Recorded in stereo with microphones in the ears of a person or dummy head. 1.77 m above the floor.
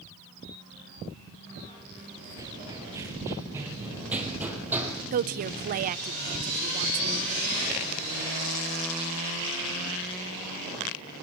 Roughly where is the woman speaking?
Right.